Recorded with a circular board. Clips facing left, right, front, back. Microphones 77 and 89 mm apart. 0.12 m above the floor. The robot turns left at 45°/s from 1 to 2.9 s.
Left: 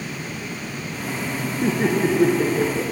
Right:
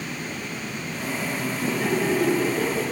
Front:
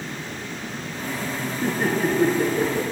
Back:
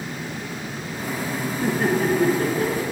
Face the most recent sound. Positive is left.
turn(degrees=35)